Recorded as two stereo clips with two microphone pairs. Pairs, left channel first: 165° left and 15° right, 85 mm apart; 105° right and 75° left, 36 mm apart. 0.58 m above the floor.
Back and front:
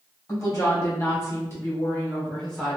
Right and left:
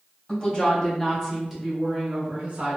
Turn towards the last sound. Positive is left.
turn(degrees=80)